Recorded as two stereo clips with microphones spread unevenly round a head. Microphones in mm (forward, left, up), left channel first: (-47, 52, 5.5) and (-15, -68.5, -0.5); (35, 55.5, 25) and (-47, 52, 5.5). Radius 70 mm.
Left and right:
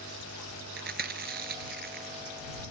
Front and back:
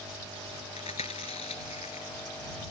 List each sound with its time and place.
0.8 s chewing: 45° right